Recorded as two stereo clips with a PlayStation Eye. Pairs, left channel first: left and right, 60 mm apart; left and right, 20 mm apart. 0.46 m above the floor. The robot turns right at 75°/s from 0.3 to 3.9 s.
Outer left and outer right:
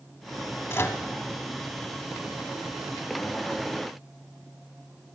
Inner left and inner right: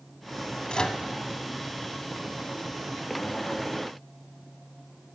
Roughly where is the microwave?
Left.